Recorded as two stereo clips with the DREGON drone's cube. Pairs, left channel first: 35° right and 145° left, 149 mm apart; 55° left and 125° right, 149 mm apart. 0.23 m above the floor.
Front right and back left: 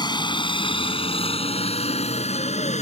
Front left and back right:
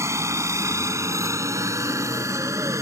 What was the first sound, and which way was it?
A helicopter, 70° right.